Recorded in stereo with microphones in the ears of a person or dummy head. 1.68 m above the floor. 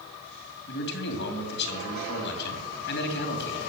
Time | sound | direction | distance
0.7 | a man speaking | 60° left (ahead or behind) | 2.5 m